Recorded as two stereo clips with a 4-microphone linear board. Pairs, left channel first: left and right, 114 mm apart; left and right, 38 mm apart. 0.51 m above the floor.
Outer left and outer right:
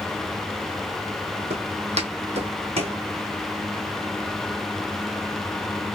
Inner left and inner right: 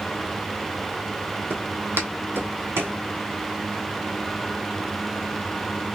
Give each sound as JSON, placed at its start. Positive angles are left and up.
{"t": 1.5, "sound": "footsteps", "side_deg": -65, "distance_m": 1.1}